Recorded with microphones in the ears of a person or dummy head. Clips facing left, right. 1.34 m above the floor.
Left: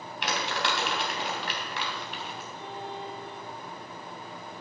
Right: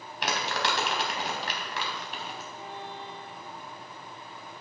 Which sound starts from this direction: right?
Crumpling, at 0.2 s.